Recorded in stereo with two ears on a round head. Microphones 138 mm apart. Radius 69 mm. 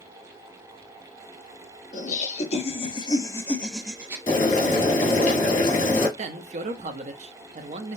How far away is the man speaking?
About 0.7 m.